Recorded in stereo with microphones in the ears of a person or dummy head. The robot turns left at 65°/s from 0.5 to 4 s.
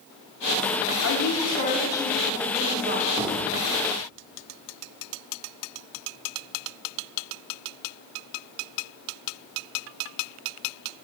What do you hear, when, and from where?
1.0 s a woman speaking: 75° left, 2.5 m; by 3.1 s 55° right, 2.5 m
3.2 s a thud: 10° right (ahead or behind), 1.2 m; by 3.6 s 15° left (ahead or behind), 1.2 m